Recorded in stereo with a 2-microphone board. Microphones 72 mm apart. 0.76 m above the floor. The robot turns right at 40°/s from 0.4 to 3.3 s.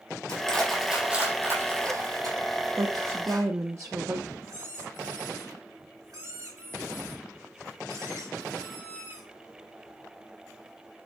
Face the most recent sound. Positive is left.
turn(degrees=-60)  # may be behind; listen again after turning